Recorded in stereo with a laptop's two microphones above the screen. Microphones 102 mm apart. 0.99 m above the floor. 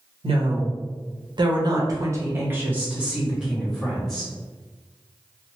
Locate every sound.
0.2 s a woman speaking: 70° right (ahead or behind), 1.0 m; by 4.3 s centre (ahead or behind), 1.8 m